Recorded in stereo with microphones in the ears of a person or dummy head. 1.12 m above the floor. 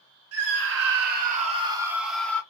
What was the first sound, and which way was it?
A scream, 65° right (ahead or behind).